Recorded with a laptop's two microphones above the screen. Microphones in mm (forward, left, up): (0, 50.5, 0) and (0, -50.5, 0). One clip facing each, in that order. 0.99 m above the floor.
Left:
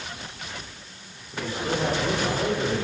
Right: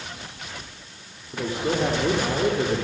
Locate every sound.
1.3 s a man speaking: 25° right (ahead or behind), 3.5 m